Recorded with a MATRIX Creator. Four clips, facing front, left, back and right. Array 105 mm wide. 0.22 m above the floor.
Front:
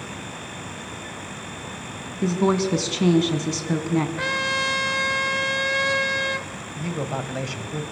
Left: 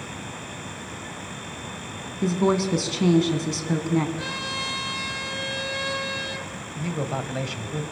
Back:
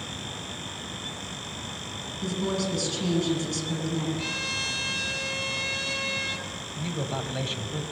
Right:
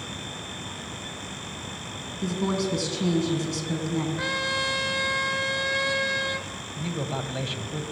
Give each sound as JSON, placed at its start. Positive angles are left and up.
{"t": 2.2, "sound": "a woman speaking", "azimuth_deg": 35, "distance_m": 2.5}
{"t": 4.2, "sound": "a trumpet", "azimuth_deg": -20, "distance_m": 1.1}
{"t": 6.8, "sound": "a man speaking", "azimuth_deg": 40, "distance_m": 1.4}